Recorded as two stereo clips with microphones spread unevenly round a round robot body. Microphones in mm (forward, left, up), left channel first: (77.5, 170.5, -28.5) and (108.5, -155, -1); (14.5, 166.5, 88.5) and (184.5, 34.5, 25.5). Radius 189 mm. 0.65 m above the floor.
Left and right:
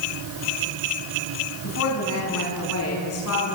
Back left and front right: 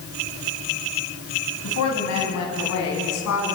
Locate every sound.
1.6 s a woman speaking: 150° left, 5.5 m